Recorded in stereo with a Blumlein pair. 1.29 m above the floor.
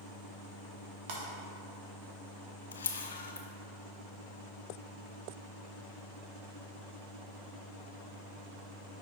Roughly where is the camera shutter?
Left.